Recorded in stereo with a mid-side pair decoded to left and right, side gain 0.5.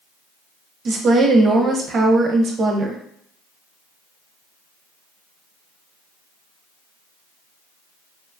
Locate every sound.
0.8 s a woman speaking: 45° right, 0.7 m